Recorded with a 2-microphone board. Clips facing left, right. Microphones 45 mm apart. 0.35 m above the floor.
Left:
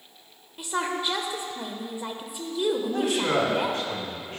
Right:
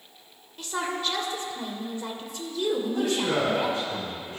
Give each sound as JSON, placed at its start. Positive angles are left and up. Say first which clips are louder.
{"t": 0.6, "sound": "a woman speaking", "louder": "left 2 dB", "side_deg": 15, "distance_m": 0.9}
{"t": 2.8, "sound": "a man speaking", "louder": "left 1 dB", "side_deg": 70, "distance_m": 3.0}